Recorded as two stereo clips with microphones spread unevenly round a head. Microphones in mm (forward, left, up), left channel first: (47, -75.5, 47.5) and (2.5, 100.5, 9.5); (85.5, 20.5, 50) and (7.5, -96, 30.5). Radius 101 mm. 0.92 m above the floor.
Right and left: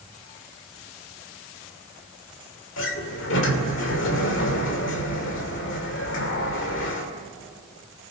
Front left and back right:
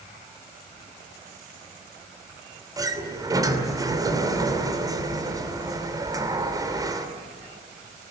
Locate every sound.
2.8 s a sliding door: 60° right, 2.5 m